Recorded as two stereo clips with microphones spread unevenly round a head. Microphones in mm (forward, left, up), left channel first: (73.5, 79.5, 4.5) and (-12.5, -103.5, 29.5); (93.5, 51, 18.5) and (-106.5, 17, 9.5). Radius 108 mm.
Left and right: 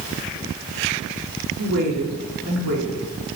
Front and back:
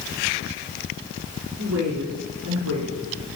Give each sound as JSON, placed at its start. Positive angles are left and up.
{"t": 1.6, "sound": "a woman speaking", "azimuth_deg": -145, "distance_m": 5.0}